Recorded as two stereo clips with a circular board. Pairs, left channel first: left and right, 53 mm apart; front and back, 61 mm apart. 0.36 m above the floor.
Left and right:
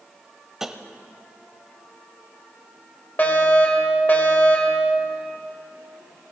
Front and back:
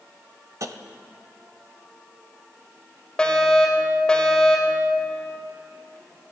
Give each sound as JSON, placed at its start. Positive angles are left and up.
{"t": 0.6, "sound": "tapping", "azimuth_deg": -170, "distance_m": 0.8}
{"t": 3.2, "sound": "a fire alarm", "azimuth_deg": 65, "distance_m": 2.0}